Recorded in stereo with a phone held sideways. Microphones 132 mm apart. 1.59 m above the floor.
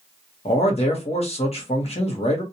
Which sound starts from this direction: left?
A man speaking, at 0.5 s.